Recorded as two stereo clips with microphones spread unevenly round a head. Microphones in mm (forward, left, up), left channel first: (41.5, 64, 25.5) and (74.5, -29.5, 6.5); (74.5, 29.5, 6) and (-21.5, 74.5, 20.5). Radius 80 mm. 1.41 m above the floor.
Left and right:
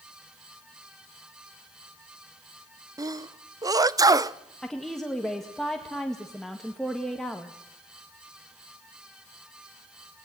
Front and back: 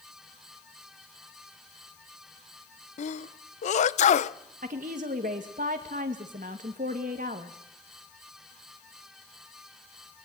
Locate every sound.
3.0 s a sneeze: 15° right, 0.7 m
4.6 s a woman speaking: 165° right, 1.7 m